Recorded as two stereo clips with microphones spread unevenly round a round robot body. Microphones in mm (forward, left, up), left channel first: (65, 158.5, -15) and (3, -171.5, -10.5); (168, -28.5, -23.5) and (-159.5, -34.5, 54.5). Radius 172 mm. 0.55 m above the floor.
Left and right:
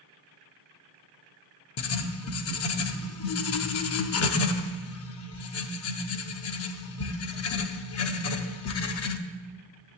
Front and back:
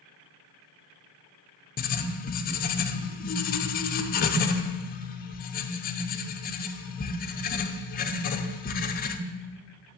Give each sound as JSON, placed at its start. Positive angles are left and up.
{"t": 1.8, "sound": "writing", "azimuth_deg": 45, "distance_m": 0.5}